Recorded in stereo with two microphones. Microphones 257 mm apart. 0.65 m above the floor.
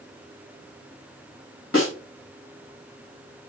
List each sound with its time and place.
1.7 s a snare drum: 55° left (ahead or behind), 3.5 m